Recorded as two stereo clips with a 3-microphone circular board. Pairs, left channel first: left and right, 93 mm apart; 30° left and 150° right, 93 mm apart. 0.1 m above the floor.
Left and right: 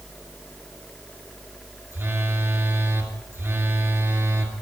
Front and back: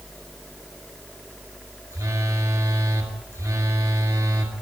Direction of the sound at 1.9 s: 135° right.